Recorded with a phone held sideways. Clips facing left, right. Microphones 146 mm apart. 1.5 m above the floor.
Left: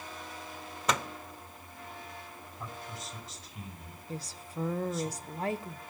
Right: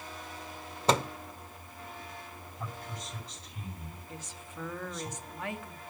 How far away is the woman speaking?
About 0.8 m.